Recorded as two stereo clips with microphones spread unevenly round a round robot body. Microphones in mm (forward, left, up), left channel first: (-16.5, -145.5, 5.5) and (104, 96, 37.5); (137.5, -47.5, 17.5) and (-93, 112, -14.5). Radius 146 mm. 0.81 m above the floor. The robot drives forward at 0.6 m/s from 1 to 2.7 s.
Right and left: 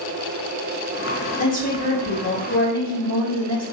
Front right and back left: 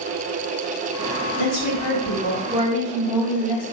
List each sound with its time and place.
1.4 s a woman speaking: 65° right, 1.7 m; by 3.6 s 95° right, 1.5 m